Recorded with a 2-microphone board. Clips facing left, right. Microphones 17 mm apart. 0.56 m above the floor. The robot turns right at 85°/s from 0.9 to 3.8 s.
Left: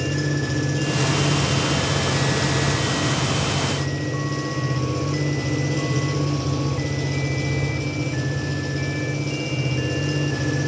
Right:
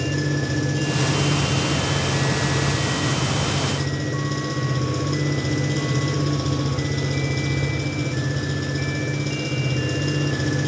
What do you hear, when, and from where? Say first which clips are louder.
0.0 s an engine running: even; 5° right, 4.5 m; by 10.7 s 115° right, 4.5 m